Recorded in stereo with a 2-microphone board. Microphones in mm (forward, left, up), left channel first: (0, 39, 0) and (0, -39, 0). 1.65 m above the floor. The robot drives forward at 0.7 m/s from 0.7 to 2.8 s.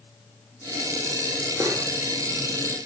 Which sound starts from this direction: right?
Cutlery clinking, at 1.6 s.